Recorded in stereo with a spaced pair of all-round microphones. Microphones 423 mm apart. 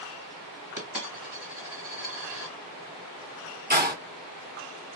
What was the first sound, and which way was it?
A dropped coin, 45° right (ahead or behind).